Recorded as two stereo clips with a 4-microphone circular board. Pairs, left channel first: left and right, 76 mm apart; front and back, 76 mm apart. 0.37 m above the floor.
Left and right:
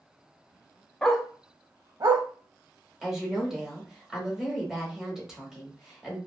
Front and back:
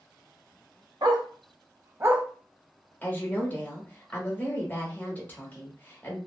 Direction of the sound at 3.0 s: 15° right.